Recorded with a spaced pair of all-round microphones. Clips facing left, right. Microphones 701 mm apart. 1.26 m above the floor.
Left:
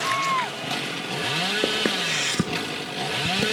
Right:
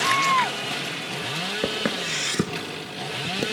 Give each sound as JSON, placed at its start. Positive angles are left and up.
{"t": 1.6, "sound": "footsteps", "side_deg": -30, "distance_m": 1.4}